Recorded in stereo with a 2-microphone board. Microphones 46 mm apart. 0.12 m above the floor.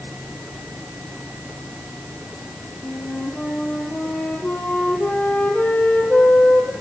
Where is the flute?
40° left (ahead or behind), 3 m.